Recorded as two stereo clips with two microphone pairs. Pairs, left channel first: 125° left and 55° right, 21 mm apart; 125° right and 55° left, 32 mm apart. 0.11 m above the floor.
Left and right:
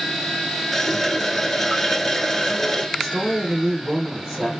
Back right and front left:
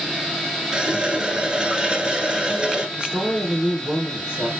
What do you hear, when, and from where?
0.7 s a running tap: 50° left, 1.1 m
3.0 s a woman speaking: 10° left, 3 m